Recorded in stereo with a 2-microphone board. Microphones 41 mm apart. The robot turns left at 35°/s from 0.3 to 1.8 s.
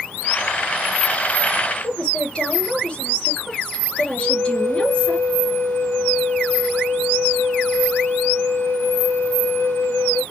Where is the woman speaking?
25° left (ahead or behind), 3.5 m.